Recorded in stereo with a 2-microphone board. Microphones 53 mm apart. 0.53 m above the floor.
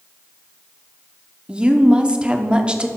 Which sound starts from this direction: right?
A woman speaking, at 1.5 s.